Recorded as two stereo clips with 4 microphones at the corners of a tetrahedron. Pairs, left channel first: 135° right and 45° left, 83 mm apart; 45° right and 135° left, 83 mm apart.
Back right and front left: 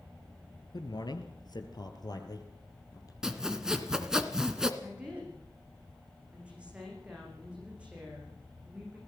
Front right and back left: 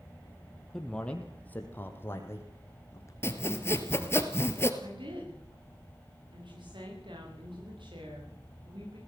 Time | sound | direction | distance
0.7 | a man speaking | 125° right | 3 m
3.2 | sawing | 30° right | 1.9 m
4.8 | a woman speaking | 120° left | 9 m